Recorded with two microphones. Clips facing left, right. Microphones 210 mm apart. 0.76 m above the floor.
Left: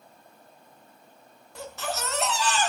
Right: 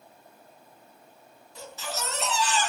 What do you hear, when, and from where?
1.6 s a baby crying: 65° left (ahead or behind), 3.5 m